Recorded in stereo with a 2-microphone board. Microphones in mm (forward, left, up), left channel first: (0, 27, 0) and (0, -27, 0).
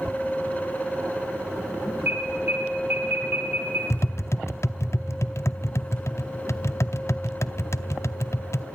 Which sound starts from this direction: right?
An alarm, at 2.1 s.